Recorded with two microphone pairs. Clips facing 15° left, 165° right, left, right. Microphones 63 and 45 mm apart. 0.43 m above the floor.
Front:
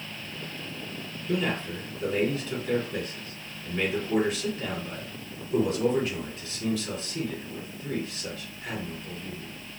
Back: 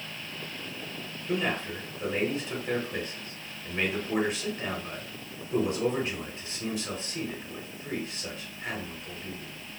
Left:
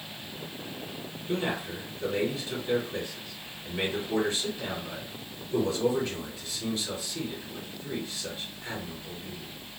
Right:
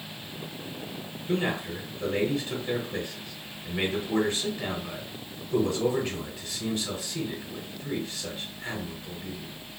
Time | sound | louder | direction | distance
1.3 | a man speaking | front 1 dB, right 2 dB | 105° right | 1.2 m